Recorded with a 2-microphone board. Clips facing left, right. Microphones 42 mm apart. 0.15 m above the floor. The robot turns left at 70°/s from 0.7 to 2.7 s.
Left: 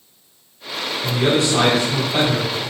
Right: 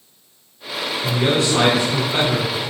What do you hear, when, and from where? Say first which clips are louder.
1.0 s a man speaking: left 1 dB; 25° left, 1.6 m; by 2.5 s 75° right, 1.6 m